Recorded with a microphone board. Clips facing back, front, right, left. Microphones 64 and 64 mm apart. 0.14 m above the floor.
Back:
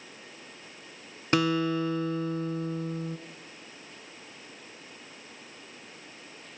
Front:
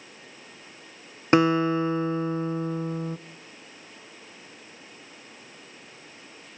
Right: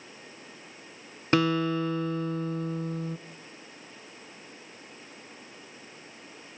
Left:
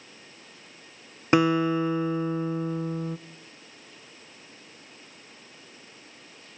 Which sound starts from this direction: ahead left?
A guitar, at 1.3 s.